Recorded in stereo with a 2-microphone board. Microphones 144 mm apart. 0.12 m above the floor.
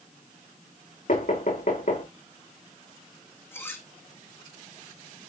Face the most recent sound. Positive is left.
turn(degrees=15)  # may be behind; listen again after turning